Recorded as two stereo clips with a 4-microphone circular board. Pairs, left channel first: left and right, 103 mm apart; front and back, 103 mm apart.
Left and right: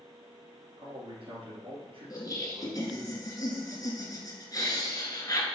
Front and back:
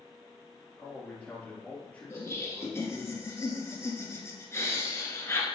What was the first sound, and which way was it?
A man speaking, 75° right.